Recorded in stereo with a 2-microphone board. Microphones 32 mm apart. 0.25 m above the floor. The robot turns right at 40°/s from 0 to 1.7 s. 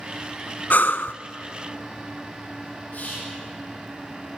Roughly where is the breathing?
Left.